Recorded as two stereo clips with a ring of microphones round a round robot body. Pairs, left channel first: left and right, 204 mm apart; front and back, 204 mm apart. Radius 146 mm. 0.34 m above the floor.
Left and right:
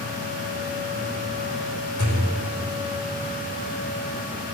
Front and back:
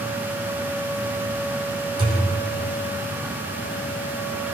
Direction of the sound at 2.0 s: 110° left.